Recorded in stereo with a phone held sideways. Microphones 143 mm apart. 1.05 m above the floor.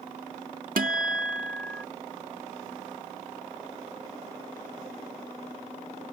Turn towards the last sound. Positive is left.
turn(degrees=-80)